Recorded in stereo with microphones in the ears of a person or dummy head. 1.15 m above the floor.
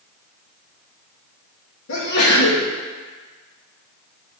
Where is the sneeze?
75° left (ahead or behind), 1.0 m.